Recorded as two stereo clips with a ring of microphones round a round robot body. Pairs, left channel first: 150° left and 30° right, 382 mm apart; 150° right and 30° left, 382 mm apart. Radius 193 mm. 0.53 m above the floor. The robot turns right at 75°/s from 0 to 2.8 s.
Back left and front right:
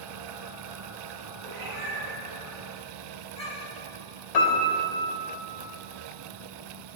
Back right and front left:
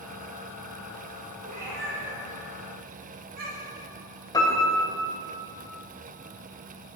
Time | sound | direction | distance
1.4 | a cat meowing | 30° right | 4 m
4.3 | a piano | 130° left | 3 m